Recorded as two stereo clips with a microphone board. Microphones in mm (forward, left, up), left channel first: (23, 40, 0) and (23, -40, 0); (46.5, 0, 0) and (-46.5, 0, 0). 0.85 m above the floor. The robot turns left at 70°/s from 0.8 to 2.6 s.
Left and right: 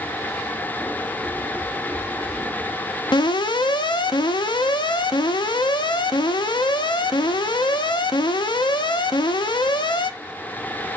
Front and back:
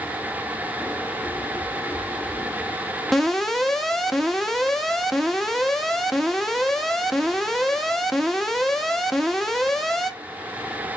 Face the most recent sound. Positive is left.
turn(degrees=85)